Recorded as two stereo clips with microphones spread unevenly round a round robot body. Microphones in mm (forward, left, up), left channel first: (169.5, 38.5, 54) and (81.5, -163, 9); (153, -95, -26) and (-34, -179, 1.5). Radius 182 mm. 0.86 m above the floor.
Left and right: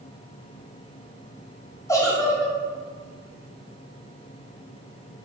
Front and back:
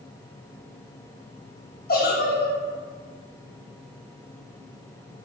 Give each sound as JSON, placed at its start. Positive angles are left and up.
{"t": 1.9, "sound": "a giggle", "azimuth_deg": -15, "distance_m": 1.4}